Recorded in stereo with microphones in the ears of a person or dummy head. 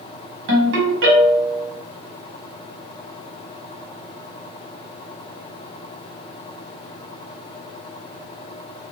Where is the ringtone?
55° right (ahead or behind), 1.1 m.